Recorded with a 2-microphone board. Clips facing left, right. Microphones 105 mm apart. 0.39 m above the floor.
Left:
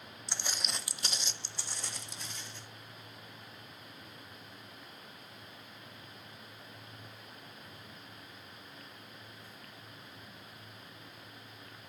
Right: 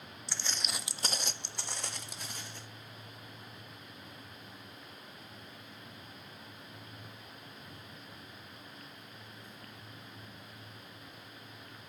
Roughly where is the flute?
No flute in this recording.